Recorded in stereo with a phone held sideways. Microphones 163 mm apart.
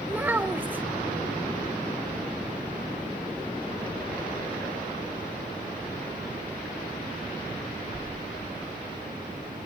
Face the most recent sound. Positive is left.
turn(degrees=-10)  # may be behind; listen again after turning